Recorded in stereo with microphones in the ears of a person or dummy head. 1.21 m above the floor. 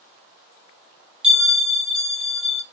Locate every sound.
1.2 s a bell: 5° right (ahead or behind), 1.3 m